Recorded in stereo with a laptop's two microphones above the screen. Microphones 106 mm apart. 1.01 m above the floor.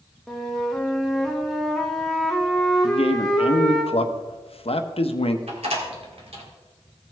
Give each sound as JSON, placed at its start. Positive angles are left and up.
{"t": 0.3, "sound": "a flute", "side_deg": 5, "distance_m": 0.9}
{"t": 2.8, "sound": "a man speaking", "side_deg": 65, "distance_m": 0.9}
{"t": 5.5, "sound": "a door slam", "side_deg": -70, "distance_m": 1.9}